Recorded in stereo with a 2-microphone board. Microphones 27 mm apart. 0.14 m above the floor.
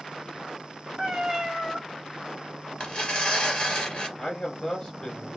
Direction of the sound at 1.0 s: 25° right (ahead or behind).